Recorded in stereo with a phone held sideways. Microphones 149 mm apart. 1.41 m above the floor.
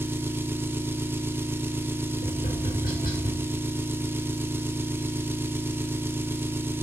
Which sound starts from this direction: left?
Tapping, at 2.2 s.